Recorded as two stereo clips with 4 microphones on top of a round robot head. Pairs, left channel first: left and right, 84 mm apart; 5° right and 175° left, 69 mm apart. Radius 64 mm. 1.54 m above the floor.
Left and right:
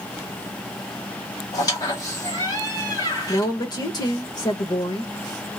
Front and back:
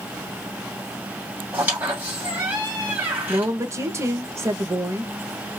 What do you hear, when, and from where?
1.5 s a squeak: 120° left, 1.9 m
3.3 s a woman speaking: 130° left, 1.0 m